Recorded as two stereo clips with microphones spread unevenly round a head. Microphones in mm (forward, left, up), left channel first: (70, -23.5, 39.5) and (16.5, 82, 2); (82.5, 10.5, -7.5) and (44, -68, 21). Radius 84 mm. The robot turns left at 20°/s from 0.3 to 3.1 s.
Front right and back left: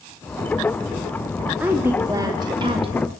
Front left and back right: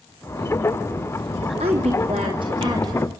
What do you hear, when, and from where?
1.6 s a woman speaking: 160° right, 3 m; by 3.1 s 170° left, 3 m